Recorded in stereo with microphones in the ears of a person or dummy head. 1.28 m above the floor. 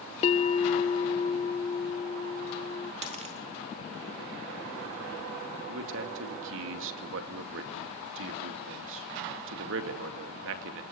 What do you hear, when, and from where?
0.2 s a bell: 45° left (ahead or behind), 1.0 m
3.0 s a dropped coin: 30° right (ahead or behind), 1.2 m
5.7 s a man speaking: 70° right (ahead or behind), 2 m